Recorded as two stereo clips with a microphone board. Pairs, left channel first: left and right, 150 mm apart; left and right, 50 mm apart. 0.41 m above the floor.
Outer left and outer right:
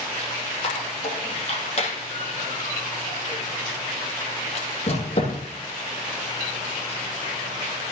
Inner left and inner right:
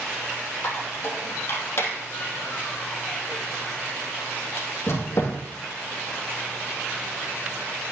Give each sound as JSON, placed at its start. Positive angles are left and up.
{"t": 0.6, "sound": "a squeak", "side_deg": 45, "distance_m": 3.0}